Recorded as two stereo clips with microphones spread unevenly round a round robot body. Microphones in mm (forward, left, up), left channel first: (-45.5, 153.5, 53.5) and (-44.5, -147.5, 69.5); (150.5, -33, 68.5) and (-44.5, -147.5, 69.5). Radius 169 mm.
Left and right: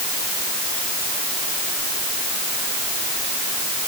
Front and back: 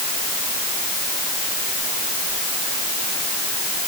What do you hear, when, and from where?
Only background noise.